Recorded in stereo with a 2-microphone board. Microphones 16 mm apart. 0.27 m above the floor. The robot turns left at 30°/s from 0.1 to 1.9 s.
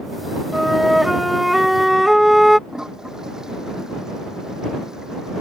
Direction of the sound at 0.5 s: 5° right (ahead or behind).